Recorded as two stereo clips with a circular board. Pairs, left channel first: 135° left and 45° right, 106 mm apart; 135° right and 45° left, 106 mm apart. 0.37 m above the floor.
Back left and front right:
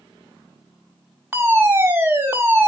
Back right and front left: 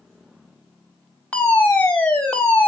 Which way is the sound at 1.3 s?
75° right.